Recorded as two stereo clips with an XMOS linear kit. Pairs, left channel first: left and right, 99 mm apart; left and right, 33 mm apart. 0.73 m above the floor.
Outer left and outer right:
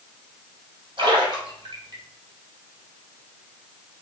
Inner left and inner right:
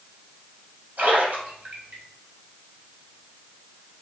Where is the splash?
50° right (ahead or behind), 2 m.